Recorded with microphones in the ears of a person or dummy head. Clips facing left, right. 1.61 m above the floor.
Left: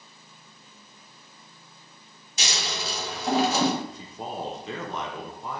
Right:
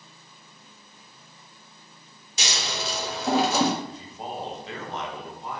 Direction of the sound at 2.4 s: 80° right.